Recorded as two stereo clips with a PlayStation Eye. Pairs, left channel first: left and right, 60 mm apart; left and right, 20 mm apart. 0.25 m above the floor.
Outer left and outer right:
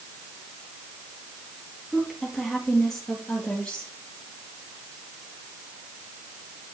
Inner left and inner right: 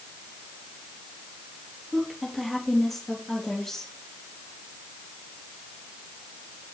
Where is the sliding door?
No sliding door in this recording.